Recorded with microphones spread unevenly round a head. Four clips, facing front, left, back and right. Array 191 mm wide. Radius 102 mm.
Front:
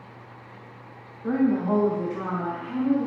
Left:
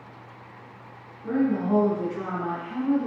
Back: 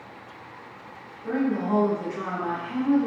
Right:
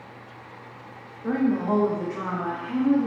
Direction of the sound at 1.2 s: 65° right.